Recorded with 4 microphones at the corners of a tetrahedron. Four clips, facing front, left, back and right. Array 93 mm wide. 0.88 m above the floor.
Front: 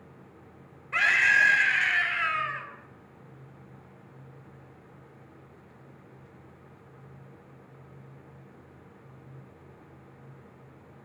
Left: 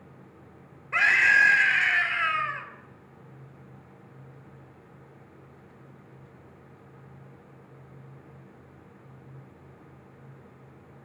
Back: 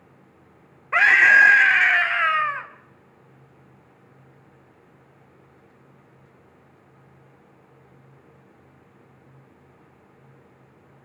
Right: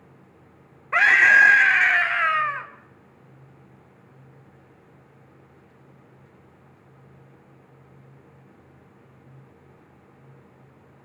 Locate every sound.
0.9 s a scream: 140° right, 2 m